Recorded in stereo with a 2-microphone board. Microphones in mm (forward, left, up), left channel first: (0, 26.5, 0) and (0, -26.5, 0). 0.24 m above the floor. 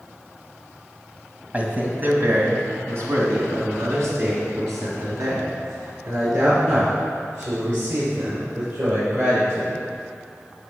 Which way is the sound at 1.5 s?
25° right (ahead or behind).